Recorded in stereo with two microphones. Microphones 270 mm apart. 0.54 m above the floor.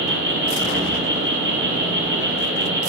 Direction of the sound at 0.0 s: 45° right (ahead or behind).